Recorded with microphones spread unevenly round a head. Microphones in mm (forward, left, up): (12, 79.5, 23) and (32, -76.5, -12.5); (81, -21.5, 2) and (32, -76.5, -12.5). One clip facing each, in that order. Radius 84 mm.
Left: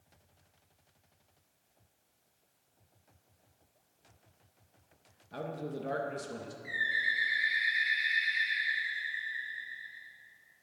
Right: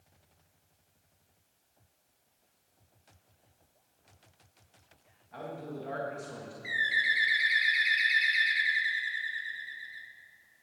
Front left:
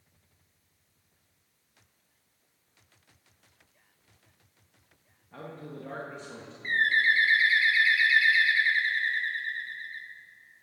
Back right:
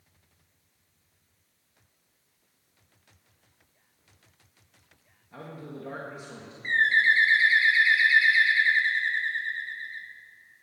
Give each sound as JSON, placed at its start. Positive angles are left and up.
{"t": 5.3, "sound": "a man speaking", "azimuth_deg": 145, "distance_m": 1.5}
{"t": 6.6, "sound": "a bird", "azimuth_deg": -65, "distance_m": 1.3}